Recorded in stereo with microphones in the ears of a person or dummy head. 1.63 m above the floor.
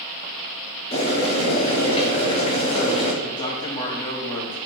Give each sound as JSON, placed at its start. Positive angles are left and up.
{"t": 0.9, "sound": "boiling", "side_deg": 25, "distance_m": 0.8}
{"t": 3.2, "sound": "a man speaking", "side_deg": 20, "distance_m": 0.8}